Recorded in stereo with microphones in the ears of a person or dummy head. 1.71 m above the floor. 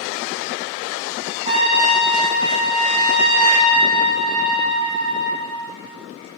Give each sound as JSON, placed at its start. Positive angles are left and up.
{"t": 1.4, "sound": "a trumpet", "side_deg": -25, "distance_m": 3.0}